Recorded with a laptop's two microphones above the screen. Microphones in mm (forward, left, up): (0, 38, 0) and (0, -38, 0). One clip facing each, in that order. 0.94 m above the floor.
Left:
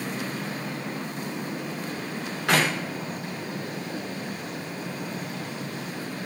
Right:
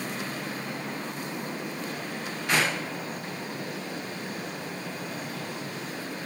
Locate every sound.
2.5 s a clap: 80° left, 2 m